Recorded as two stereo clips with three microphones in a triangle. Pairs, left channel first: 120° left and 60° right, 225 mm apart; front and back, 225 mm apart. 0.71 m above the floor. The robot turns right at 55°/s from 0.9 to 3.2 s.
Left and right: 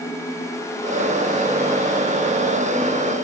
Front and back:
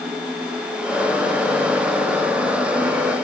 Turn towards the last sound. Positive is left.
No sound to turn to.